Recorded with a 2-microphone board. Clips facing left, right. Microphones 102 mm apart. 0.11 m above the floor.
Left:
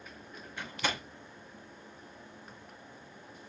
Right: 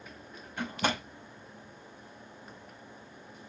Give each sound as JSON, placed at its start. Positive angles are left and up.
{"t": 0.6, "sound": "a door slam", "side_deg": -45, "distance_m": 6.0}